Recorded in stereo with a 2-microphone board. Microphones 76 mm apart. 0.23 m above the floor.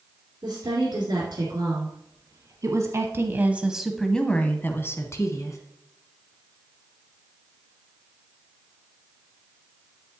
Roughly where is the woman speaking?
Right.